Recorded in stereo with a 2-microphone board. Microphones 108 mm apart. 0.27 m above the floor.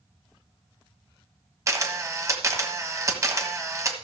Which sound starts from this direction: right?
A camera shutter, at 1.7 s.